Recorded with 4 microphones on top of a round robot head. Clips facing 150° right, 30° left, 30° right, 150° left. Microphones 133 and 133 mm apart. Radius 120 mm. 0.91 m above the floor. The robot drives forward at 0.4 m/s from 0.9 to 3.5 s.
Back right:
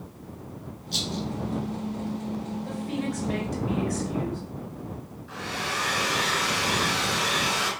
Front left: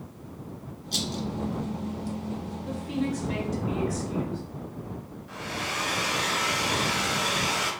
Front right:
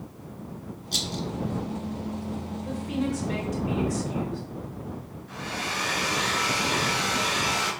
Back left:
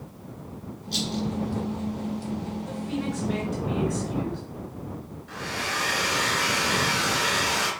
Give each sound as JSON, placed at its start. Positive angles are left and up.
{"t": 0.9, "sound": "a rattle", "azimuth_deg": 0, "distance_m": 1.4}
{"t": 2.6, "sound": "a woman speaking", "azimuth_deg": -100, "distance_m": 2.5}
{"t": 5.3, "sound": "a hair dryer", "azimuth_deg": 120, "distance_m": 3.0}